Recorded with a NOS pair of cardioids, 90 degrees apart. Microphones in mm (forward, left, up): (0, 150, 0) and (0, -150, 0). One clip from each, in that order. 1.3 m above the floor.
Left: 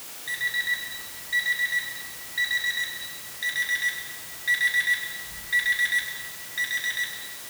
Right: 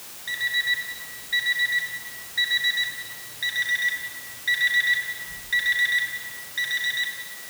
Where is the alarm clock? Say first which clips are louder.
Right 2 dB; 15° right, 5 m.